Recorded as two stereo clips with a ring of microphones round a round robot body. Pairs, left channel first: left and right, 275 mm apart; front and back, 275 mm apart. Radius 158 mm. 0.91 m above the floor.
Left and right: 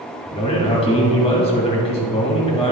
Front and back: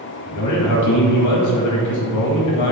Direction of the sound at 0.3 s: 15° left.